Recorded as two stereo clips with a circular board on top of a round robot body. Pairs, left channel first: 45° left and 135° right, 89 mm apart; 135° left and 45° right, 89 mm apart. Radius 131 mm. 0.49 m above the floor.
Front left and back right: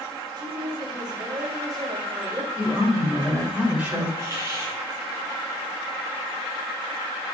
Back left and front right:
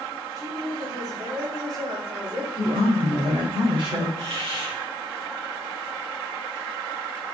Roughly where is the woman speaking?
Right.